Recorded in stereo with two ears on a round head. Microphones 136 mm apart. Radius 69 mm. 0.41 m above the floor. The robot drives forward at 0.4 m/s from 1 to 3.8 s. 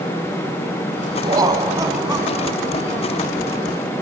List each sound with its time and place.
1.2 s laughter: 25° right (ahead or behind), 2.5 m; by 3.2 s 20° right (ahead or behind), 3 m